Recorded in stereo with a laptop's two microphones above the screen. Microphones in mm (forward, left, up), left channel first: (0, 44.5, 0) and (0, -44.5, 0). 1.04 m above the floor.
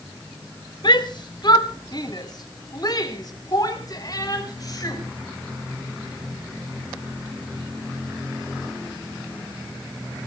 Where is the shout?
55° left (ahead or behind), 2 m; by 5.0 s 40° left (ahead or behind), 6 m.